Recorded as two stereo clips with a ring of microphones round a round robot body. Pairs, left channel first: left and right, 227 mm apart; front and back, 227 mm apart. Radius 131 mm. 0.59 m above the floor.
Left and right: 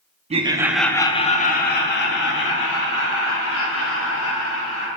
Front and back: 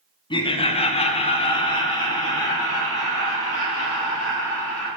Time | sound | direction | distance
0.3 | laughter | 55° right | 0.9 m